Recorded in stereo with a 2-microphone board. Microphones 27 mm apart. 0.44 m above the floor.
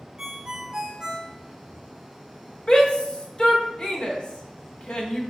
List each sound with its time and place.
0.2 s a ringtone: 30° right (ahead or behind), 0.8 m
2.7 s a shout: 35° left (ahead or behind), 1.2 m